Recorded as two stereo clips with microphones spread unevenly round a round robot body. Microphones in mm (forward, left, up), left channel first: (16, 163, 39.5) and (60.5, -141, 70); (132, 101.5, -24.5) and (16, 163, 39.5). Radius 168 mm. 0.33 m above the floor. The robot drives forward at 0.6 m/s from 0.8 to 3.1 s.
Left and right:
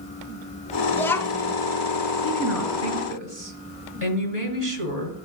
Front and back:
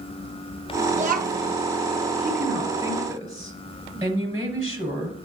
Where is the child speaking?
160° left, 0.5 m; by 1.6 s 175° left, 0.7 m.